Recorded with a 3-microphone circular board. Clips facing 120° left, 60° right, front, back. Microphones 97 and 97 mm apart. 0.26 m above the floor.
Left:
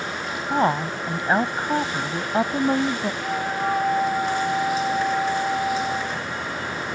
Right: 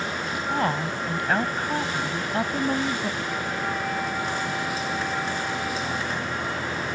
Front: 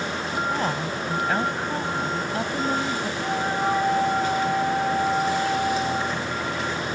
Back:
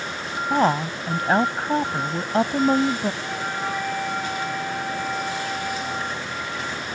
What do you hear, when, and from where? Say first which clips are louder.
0.5 s a woman speaking: left 5 dB, back 5 dB; 170° left
3.2 s a flute: left 4 dB, front 4 dB; 65° left